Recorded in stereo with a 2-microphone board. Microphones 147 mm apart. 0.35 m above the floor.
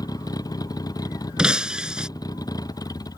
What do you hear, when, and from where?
0.0 s a vehicle: 25° left (ahead or behind)
1.4 s breaking glass: 5° right (ahead or behind)